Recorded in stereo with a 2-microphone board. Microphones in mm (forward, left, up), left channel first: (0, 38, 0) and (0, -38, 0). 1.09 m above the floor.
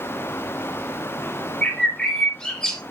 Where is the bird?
10° left (ahead or behind), 1.2 m.